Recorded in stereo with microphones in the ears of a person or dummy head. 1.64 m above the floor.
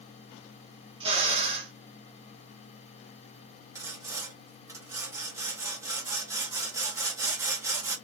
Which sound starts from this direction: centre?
Sawing, at 3.8 s.